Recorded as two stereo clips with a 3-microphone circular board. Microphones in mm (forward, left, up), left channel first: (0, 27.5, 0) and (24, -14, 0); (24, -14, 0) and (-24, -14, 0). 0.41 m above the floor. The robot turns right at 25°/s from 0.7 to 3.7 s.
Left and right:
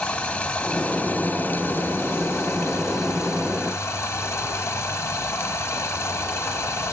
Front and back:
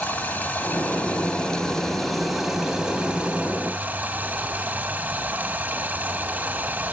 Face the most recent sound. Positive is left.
turn(degrees=125)